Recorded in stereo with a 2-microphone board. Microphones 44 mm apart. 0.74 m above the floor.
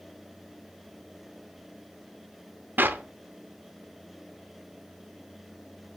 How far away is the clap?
About 0.6 m.